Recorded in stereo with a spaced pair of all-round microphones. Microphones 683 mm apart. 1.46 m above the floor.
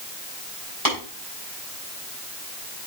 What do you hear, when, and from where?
0.8 s tapping: 45° right (ahead or behind), 5.5 m